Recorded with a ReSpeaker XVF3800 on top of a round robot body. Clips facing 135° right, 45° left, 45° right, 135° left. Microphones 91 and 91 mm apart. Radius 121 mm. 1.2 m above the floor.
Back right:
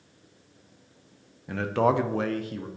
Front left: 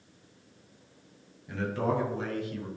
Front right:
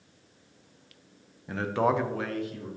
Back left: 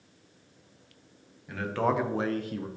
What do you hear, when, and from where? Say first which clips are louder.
1.5 s a man speaking: back right 6 dB, front right 2 dB; 100° right, 0.8 m; by 2.7 s 165° left, 0.8 m